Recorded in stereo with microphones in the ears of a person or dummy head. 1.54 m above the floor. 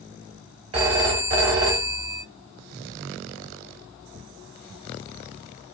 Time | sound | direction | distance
0.7 | a phone ringing | 25° right (ahead or behind) | 1.1 m